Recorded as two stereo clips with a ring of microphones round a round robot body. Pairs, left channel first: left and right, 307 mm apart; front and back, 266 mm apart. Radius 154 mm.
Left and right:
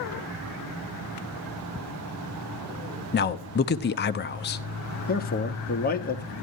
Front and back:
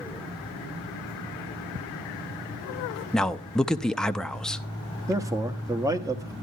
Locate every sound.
3.1 s a man speaking: 85° left, 0.6 m
5.1 s a man speaking: 115° left, 1.1 m